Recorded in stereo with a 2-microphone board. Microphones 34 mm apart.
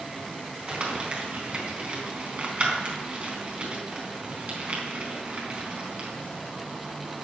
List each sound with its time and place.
0.7 s crumpling: 35° right (ahead or behind), 4 m